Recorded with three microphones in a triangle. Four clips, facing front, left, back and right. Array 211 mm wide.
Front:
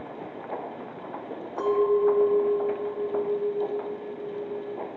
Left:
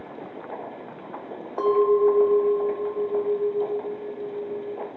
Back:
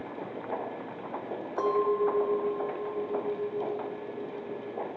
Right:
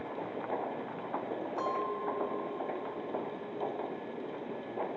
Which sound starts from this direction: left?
A clink, at 1.6 s.